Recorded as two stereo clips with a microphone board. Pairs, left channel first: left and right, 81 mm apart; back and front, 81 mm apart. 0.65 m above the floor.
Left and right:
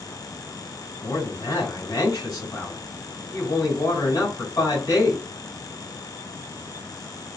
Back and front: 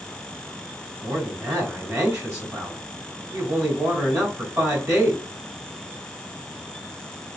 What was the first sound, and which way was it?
A man speaking, 50° left.